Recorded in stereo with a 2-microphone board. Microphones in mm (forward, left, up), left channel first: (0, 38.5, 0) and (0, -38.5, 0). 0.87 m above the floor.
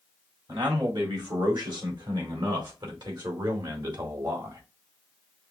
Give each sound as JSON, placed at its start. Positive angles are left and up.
{"t": 0.5, "sound": "a man speaking", "side_deg": -85, "distance_m": 3.0}